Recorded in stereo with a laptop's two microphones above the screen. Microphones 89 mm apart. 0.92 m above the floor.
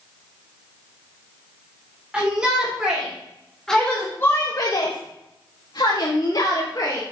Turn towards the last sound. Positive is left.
turn(degrees=40)  # may be behind; listen again after turning